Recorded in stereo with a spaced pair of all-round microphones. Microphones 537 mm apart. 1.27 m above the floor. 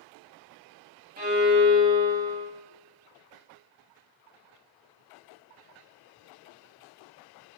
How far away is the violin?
About 2.5 m.